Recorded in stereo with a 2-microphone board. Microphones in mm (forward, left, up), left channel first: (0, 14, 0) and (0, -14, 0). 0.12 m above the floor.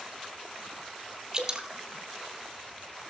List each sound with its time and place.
1.3 s dripping: 25° right (ahead or behind), 1.4 m